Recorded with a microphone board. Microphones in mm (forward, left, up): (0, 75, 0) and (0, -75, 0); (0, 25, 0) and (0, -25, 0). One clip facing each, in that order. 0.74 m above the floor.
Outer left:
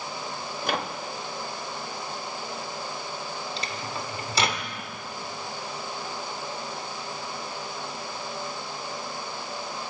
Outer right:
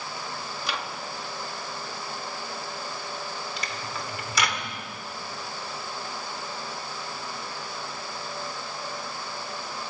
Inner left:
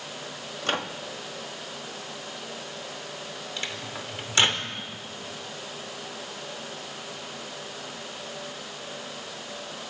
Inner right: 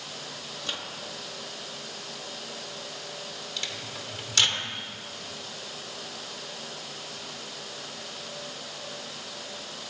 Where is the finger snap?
No finger snap in this recording.